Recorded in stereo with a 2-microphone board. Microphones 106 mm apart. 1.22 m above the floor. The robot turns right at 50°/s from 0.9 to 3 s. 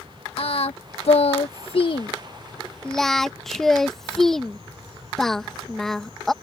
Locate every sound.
0.4 s singing: 65° left (ahead or behind); by 6.3 s 5° left (ahead or behind)